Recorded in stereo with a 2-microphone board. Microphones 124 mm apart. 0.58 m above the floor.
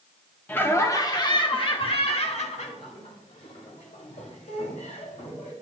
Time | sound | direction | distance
0.5 | laughter | 15° left (ahead or behind) | 1.0 m